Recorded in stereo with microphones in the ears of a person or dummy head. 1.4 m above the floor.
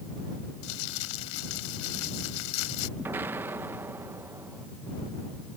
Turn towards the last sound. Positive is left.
turn(degrees=-10)  # may be behind; listen again after turning